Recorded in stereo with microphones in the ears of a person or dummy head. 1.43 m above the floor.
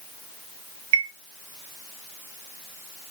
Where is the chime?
75° right (ahead or behind), 1.1 m.